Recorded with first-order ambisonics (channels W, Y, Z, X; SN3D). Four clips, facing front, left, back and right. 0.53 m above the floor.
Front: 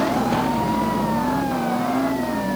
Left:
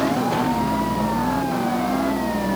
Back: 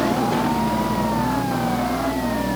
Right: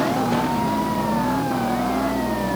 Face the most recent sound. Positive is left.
No sound to turn to.